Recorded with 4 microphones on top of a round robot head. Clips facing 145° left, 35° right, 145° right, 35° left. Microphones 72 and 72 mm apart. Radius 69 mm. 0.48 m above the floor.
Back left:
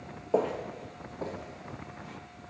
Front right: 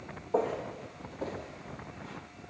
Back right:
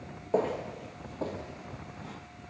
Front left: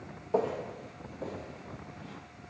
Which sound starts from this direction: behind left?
Footsteps, at 0.3 s.